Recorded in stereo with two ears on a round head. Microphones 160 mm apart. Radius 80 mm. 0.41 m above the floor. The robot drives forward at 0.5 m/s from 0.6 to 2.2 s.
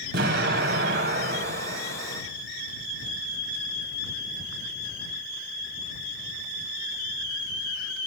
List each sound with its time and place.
0.1 s an explosion: 65° right (ahead or behind), 3 m; by 2.2 s 55° right (ahead or behind), 3 m